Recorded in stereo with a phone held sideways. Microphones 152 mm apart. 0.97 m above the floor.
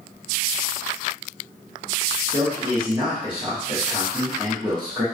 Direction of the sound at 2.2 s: 30° right (ahead or behind).